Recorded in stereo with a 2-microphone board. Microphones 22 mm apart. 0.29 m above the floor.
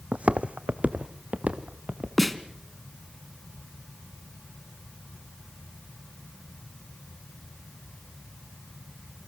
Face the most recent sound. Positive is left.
turn(degrees=10)  # may be behind; listen again after turning